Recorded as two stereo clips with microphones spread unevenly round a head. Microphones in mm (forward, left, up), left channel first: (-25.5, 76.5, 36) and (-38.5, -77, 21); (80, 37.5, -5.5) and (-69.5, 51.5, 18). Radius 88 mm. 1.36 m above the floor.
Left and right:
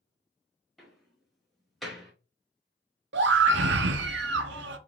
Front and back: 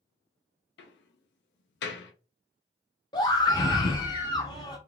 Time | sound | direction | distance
0.8 | a door slam | 5° right | 0.7 m
3.1 | a scream | 75° right | 0.7 m